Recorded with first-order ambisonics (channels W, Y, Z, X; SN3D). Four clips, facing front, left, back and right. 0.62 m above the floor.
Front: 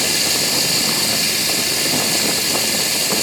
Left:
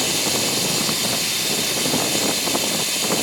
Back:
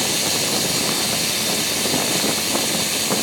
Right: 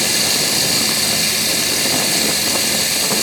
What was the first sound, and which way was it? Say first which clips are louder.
Running water: right 4 dB, front 3 dB; 85° right.